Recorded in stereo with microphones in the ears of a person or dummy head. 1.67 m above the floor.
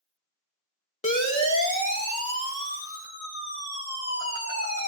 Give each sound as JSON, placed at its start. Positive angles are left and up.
{"t": 1.0, "sound": "a siren", "side_deg": 30, "distance_m": 2.5}